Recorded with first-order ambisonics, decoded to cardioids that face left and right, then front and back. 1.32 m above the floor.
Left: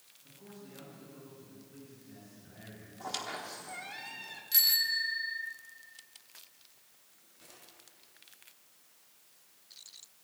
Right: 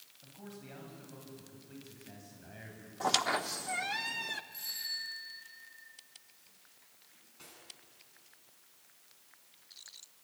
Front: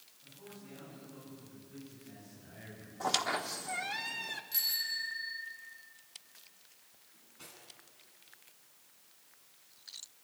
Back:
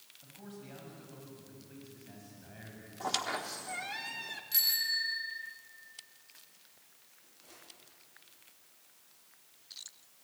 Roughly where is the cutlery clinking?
Ahead right.